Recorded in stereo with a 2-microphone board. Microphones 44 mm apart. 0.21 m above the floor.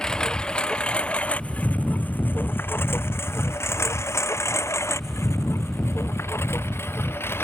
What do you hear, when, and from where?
0.0 s a lawn mower: 15° left (ahead or behind); by 7.4 s 60° left (ahead or behind)